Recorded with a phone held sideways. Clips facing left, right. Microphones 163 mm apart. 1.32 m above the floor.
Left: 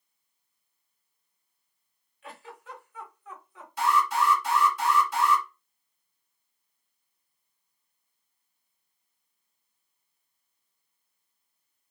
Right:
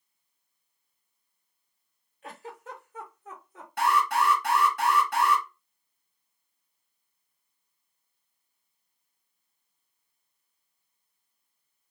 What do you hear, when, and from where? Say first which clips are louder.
2.2 s a giggle: right 3 dB; 45° right (ahead or behind), 1.2 m
3.8 s an alarm: even; 70° right (ahead or behind), 2.5 m